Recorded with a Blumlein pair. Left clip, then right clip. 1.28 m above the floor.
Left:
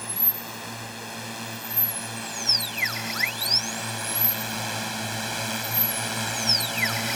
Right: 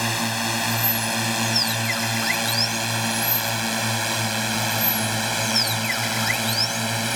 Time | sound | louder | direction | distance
0.0 | a drone | right 11 dB | 35° right | ?